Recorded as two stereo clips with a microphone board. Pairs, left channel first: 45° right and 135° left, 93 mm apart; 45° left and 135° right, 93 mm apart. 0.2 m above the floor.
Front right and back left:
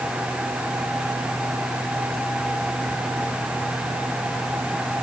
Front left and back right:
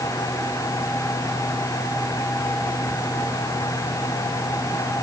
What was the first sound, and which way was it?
Only background noise.